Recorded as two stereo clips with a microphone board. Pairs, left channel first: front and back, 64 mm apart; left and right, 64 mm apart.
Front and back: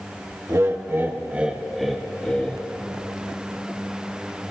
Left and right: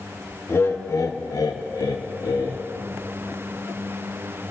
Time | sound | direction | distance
0.5 | laughter | 140° left | 1.4 m